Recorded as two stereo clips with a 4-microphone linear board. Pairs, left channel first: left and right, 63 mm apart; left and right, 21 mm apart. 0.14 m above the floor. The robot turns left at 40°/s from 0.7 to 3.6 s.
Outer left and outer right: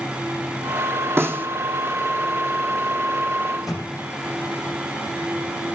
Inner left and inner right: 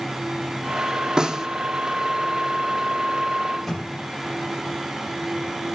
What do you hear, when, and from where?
1.2 s a snare drum: 40° right (ahead or behind), 1.5 m; by 1.5 s 30° right (ahead or behind), 1.5 m
3.5 s a microwave: 10° right (ahead or behind), 5.5 m; by 3.9 s 5° right (ahead or behind), 5.5 m